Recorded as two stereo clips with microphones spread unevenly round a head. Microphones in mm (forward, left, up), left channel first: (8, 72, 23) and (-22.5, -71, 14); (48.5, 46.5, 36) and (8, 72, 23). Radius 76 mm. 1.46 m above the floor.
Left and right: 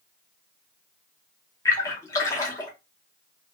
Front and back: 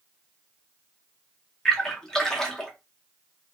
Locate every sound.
1.6 s a splash: 20° left, 0.7 m